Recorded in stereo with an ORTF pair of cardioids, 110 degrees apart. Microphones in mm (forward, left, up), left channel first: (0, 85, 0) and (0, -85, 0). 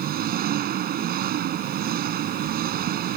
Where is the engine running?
60° right.